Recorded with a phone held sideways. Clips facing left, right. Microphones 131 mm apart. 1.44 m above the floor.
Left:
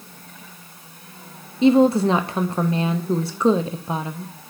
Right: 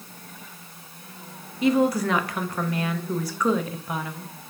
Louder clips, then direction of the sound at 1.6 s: Left 6 dB; 25° left (ahead or behind).